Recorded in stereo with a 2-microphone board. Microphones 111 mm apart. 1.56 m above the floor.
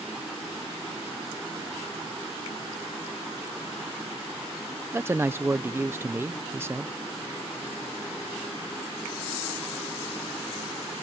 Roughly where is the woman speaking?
Right.